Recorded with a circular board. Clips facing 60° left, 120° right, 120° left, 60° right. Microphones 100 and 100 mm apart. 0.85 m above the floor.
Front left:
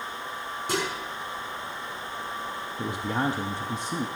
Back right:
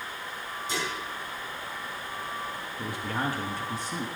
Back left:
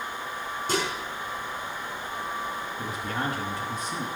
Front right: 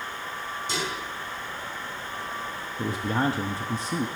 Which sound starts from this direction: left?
Dishes clattering, at 0.7 s.